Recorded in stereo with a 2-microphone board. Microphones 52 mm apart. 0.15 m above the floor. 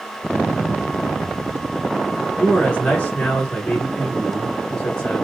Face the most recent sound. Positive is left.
turn(degrees=25)  # may be behind; listen again after turning